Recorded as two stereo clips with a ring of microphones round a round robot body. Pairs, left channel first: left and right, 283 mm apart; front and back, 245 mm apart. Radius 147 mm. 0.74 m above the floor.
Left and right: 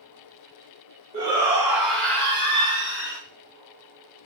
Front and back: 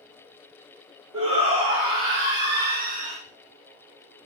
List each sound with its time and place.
1.1 s a shout: 155° right, 1.2 m; by 3.2 s 120° left, 1.0 m